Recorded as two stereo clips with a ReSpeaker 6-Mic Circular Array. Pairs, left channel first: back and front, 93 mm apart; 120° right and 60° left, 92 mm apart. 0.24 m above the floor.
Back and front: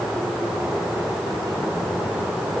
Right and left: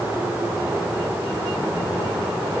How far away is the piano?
No piano in this recording.